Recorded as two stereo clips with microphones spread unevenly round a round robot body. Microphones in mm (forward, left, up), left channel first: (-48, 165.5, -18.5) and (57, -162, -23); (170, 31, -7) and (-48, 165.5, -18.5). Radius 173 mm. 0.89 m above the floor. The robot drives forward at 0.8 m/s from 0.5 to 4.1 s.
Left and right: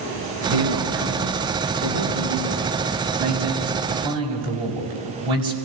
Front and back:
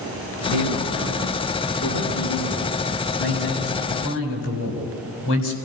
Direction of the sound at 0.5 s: 45° right.